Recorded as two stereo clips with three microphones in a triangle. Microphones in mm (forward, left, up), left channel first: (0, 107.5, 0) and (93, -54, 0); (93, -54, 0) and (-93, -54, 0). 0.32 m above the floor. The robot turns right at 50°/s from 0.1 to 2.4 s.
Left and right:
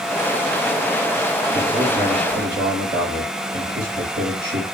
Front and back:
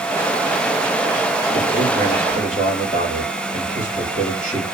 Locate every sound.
1.5 s a man speaking: 100° right, 4 m; by 4.7 s 55° right, 4 m